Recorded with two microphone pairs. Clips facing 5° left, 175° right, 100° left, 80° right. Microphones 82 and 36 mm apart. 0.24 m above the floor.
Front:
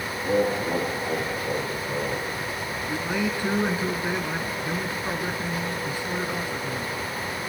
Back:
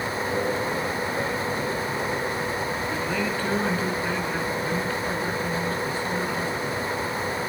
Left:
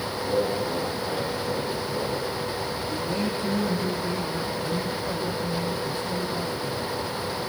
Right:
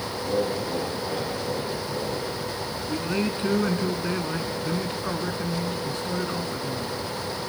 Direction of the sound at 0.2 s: 5° right.